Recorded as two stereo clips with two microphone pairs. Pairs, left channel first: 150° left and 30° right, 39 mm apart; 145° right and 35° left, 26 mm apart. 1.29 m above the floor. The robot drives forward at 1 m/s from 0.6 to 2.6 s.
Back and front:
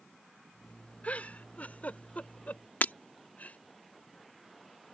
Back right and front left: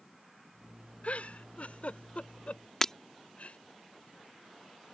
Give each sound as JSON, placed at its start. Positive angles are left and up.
{"t": 1.0, "sound": "a giggle", "azimuth_deg": -160}
{"t": 2.8, "sound": "breaking glass", "azimuth_deg": 150}